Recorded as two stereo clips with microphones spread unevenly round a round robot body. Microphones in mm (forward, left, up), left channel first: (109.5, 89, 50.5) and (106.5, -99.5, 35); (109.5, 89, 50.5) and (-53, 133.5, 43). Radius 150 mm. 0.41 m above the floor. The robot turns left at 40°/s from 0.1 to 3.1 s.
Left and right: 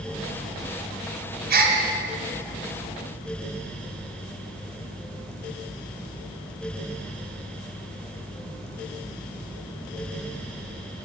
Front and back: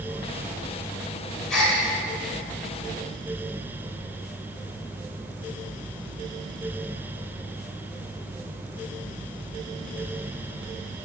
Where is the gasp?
100° right, 1.7 m; by 1.8 s 110° right, 1.7 m.